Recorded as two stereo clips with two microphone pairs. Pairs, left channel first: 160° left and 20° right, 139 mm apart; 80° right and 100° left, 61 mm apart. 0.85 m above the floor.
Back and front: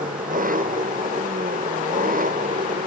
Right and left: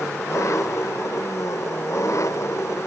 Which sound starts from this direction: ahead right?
An engine running, at 0.0 s.